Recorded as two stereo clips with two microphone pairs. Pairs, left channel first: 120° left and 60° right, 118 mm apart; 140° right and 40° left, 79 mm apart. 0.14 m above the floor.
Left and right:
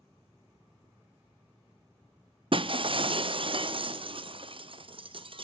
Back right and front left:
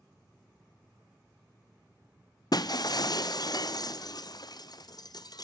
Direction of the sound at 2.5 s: 105° right.